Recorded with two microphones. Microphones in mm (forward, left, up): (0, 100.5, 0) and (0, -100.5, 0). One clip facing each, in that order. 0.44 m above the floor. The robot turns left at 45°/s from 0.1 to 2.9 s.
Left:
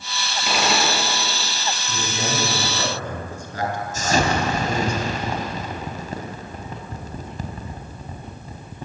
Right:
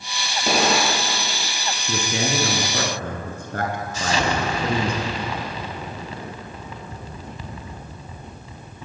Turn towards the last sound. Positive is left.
turn(degrees=45)  # may be behind; listen again after turning